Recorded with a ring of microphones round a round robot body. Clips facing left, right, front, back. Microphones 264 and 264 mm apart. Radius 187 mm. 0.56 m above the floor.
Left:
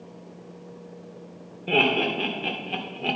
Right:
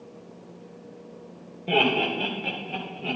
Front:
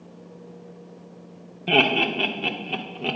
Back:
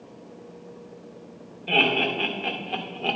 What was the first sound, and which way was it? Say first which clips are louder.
Laughter: left 1 dB, front 3 dB; 10° left.